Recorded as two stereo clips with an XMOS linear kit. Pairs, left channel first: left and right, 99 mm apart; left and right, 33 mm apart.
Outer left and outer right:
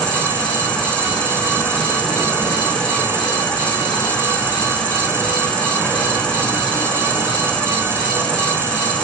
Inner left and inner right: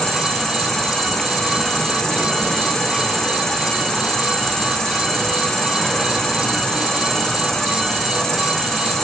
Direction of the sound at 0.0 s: 10° left (ahead or behind).